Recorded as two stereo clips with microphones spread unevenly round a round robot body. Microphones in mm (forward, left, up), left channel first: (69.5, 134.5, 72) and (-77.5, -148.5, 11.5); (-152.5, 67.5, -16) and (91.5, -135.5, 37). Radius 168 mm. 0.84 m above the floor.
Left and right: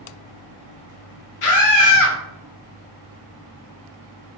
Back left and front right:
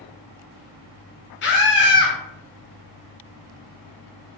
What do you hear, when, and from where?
1.4 s a scream: 95° left, 1.2 m